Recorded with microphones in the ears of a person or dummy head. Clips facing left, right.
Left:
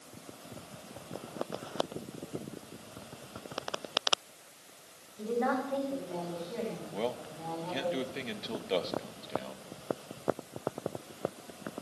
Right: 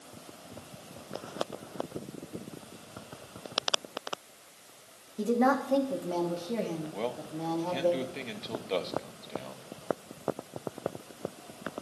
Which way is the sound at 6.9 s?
5° left (ahead or behind).